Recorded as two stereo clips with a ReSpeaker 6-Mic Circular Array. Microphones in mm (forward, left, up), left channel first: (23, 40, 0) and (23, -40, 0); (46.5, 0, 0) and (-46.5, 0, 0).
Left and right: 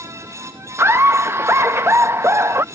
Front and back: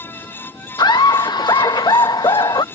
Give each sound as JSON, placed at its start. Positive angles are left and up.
{"t": 0.8, "sound": "laughter", "azimuth_deg": -35}